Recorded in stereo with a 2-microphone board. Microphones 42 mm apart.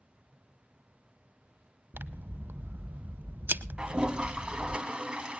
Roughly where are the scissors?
Right.